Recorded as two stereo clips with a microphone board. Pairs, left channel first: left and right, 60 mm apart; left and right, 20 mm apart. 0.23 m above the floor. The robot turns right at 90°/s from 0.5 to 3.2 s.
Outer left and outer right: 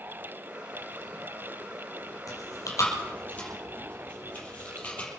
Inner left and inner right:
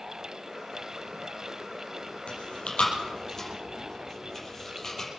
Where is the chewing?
70° left (ahead or behind), 5 m; by 5.1 s 25° left (ahead or behind), 5 m.